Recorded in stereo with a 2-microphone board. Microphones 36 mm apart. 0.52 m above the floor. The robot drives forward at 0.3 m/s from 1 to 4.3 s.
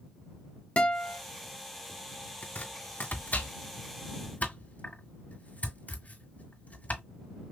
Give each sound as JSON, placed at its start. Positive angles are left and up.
{"t": 0.8, "sound": "a guitar", "side_deg": 40, "distance_m": 1.1}
{"t": 2.4, "sound": "chopping", "side_deg": 65, "distance_m": 2.0}